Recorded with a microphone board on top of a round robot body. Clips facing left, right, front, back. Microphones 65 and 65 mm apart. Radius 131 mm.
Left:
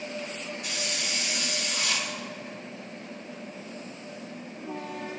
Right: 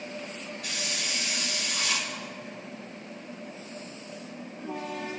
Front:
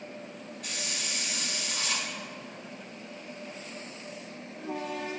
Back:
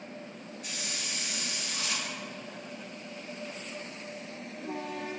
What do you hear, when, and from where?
0.6 s a hiss: 25° left, 4 m